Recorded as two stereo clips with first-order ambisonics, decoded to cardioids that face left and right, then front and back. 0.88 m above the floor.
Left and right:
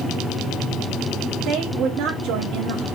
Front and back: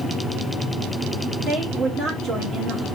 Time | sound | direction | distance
1.5 | a woman speaking | 115° right | 1.2 m